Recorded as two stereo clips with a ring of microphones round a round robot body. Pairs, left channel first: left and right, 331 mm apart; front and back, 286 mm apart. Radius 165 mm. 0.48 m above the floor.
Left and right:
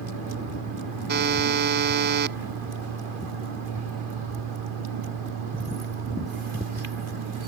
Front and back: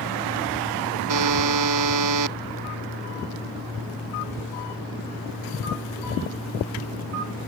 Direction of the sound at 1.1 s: 150° right.